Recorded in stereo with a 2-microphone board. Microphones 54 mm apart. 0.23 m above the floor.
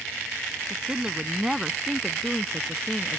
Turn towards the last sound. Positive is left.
turn(degrees=15)  # may be behind; listen again after turning